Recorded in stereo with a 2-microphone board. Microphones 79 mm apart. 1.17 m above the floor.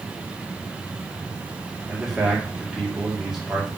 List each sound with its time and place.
1.9 s a man speaking: 5° right (ahead or behind), 2.5 m